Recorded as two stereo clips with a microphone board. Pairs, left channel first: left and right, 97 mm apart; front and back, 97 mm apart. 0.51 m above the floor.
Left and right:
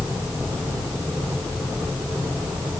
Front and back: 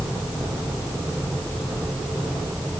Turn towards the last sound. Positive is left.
No sound to turn to.